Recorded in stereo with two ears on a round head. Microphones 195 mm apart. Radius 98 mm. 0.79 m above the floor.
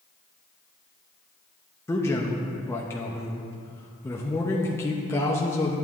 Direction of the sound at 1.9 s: 10° left (ahead or behind).